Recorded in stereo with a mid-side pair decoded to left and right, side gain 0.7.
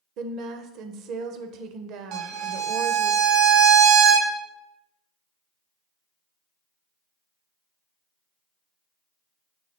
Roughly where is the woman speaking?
Ahead right.